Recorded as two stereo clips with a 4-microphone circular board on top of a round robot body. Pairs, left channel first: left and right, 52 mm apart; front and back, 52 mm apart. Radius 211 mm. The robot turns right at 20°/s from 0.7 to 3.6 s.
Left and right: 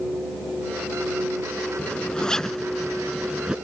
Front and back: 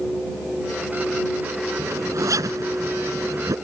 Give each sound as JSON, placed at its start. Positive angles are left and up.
{"t": 1.8, "sound": "a zipper", "azimuth_deg": 155}